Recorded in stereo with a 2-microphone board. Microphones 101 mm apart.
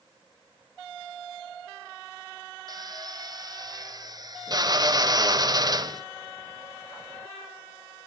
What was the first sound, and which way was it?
A drill, 40° right (ahead or behind).